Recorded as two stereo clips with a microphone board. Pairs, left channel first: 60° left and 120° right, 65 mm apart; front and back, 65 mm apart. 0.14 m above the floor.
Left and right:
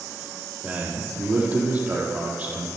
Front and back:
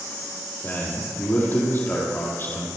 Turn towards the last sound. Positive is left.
turn(degrees=-55)